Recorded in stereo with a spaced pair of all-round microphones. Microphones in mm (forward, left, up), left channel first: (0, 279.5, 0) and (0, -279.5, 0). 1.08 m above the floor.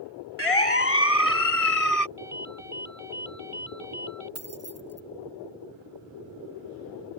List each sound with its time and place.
0.4 s a siren: 75° left (ahead or behind); by 2.1 s 85° left
2.2 s a ringtone: 65° right (ahead or behind)
4.3 s keys jangling: 25° right (ahead or behind)